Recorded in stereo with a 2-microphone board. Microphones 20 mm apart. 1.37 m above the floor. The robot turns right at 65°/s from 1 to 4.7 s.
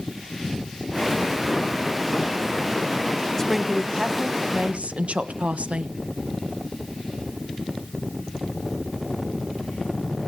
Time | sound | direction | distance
3.4 | a woman speaking | 160° left | 1.2 m